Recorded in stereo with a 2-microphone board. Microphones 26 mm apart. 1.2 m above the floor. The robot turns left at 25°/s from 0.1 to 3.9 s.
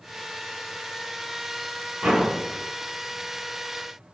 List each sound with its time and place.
2.0 s a door slam: 90° right, 5 m; by 2.3 s 80° right, 5 m